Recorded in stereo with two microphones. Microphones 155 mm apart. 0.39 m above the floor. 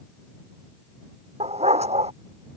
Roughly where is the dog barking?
Right.